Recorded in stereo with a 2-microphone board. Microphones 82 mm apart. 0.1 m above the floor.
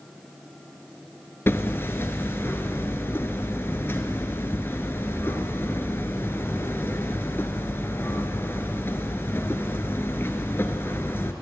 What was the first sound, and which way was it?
Hammering, 30° left (ahead or behind).